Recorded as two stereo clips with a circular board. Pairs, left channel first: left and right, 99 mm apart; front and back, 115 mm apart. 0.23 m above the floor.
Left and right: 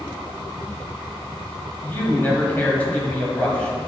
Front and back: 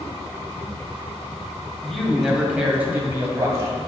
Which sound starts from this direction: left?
A man speaking, at 1.8 s.